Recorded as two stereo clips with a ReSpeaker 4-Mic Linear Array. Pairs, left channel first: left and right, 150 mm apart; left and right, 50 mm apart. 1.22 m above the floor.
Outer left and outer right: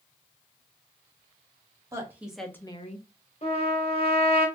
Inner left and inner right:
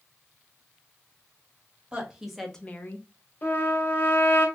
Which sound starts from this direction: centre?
A woman speaking, at 1.9 s.